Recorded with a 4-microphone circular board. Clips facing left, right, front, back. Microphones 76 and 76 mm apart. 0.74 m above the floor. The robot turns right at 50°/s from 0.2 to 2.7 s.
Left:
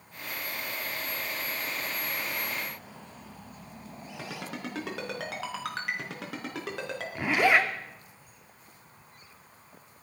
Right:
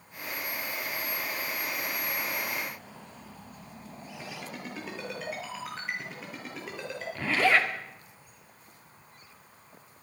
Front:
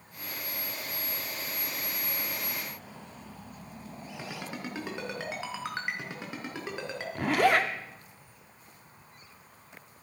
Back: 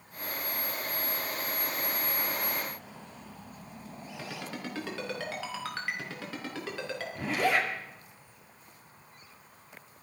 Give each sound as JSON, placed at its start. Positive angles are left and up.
{"t": 4.2, "sound": "a ringtone", "azimuth_deg": 70, "distance_m": 4.5}
{"t": 7.2, "sound": "a zipper", "azimuth_deg": 20, "distance_m": 2.0}